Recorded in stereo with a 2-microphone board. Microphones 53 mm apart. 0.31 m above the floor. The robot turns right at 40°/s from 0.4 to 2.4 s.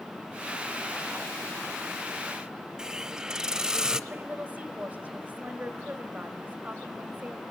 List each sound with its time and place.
2.8 s a hiss: 10° right (ahead or behind), 0.6 m
4.1 s a woman speaking: 25° right (ahead or behind), 1.6 m